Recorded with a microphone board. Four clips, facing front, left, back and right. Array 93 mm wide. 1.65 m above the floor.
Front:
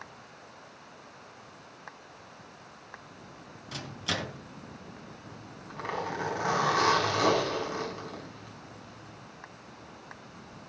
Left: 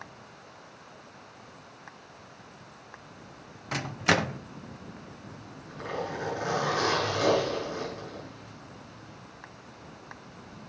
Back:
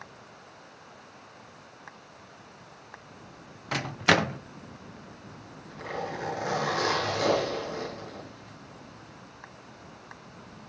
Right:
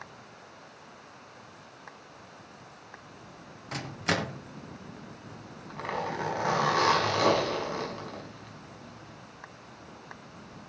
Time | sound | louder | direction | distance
3.7 | a microwave | left 4 dB, back 12 dB | 160° left | 0.6 m
5.2 | a zipper | even, even | 55° right | 5 m